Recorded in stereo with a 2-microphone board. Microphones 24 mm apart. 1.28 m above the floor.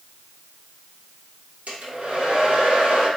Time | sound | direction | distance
1.7 | a hair dryer | 85° right | 1.4 m